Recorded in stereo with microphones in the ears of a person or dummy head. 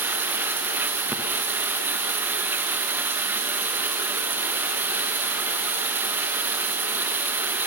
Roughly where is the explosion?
I don't hear an explosion.